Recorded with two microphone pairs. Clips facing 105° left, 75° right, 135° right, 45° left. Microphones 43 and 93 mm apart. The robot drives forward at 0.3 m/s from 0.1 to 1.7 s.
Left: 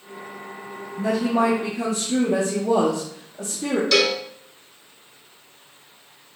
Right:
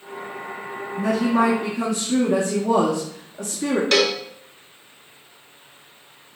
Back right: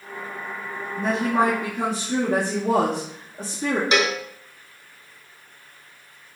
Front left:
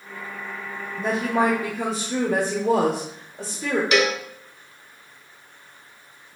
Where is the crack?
No crack in this recording.